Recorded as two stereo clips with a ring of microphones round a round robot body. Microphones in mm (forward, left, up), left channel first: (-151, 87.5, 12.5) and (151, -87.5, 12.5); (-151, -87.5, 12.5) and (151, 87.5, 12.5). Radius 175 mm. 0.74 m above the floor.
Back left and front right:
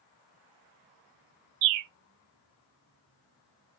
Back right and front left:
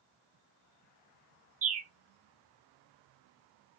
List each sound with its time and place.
1.6 s a bird: 40° right, 0.6 m